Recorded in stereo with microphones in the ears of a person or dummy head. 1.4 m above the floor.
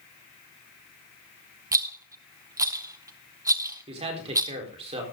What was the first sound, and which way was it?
A rattle, 15° right (ahead or behind).